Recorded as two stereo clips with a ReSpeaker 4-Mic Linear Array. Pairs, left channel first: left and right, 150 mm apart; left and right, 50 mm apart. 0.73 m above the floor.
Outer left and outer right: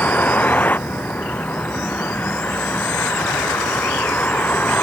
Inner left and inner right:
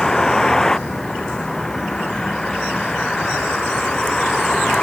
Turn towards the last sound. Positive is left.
turn(degrees=10)  # may be behind; listen again after turning